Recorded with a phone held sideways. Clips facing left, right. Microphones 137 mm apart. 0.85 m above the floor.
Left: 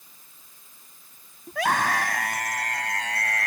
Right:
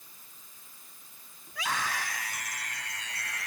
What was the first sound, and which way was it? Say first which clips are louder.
A scream: left 10 dB; 60° left (ahead or behind).